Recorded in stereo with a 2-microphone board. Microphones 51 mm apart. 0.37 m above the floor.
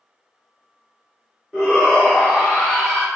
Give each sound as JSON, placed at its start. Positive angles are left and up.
{"t": 1.5, "sound": "a shout", "side_deg": -5, "distance_m": 1.0}